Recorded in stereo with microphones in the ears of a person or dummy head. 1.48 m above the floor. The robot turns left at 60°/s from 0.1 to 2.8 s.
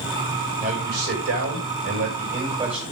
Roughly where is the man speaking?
Ahead right.